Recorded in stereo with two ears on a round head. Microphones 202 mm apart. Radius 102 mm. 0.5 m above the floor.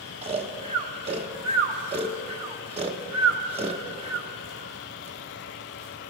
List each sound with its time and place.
0.2 s snoring: 25° right (ahead or behind), 0.8 m